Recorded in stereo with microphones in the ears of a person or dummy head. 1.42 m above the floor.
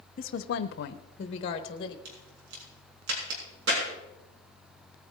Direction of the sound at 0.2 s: 40° left (ahead or behind).